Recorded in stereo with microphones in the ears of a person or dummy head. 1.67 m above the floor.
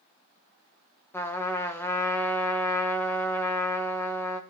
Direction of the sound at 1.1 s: 15° left (ahead or behind).